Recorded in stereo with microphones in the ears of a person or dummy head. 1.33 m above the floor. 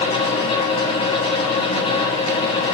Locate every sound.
0.0 s a fan: 30° left (ahead or behind), 0.9 m